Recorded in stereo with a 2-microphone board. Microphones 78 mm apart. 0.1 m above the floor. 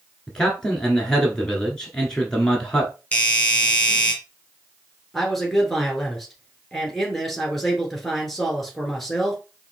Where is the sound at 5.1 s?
5° left (ahead or behind), 1.8 m.